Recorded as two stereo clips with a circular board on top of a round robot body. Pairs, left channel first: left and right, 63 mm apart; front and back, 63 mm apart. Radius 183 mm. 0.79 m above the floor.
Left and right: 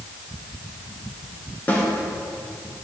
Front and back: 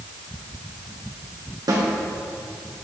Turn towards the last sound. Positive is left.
turn(degrees=155)